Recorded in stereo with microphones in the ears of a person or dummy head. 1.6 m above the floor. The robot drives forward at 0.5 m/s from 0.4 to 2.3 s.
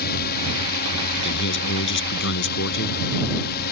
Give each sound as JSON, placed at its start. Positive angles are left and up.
{"t": 0.0, "sound": "a drone", "side_deg": 55}
{"t": 1.2, "sound": "a man speaking", "side_deg": 60}